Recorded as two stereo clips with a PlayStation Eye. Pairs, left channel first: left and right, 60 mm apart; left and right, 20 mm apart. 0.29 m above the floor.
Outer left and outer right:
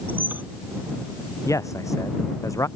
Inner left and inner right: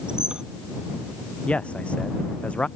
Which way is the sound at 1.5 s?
55° left (ahead or behind).